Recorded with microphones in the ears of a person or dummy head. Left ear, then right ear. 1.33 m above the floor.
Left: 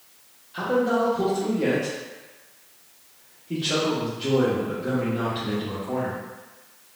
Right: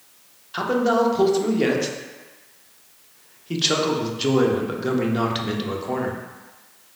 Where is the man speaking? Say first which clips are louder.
Right 3 dB; 45° right (ahead or behind), 0.6 m.